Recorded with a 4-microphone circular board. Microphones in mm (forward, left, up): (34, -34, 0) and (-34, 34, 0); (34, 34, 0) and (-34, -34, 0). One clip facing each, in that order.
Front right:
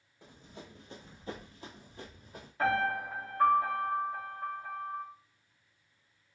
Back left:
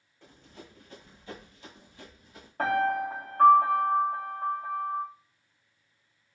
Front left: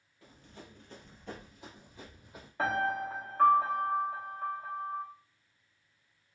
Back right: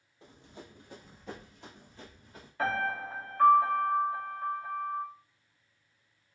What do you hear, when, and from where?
0.2 s running footsteps: 110° right, 1.1 m; by 2.5 s 25° right, 1.6 m
2.6 s a piano: 110° left, 1.3 m